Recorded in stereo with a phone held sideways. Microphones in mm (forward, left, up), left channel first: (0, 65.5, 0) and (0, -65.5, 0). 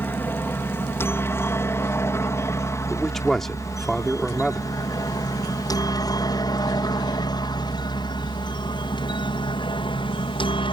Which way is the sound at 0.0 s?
15° left (ahead or behind).